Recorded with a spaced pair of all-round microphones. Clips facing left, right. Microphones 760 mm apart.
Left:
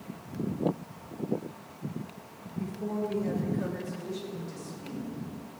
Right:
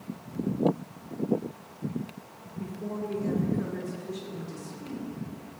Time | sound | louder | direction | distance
2.6 | a woman speaking | left 2 dB | 25° left (ahead or behind) | 1.8 m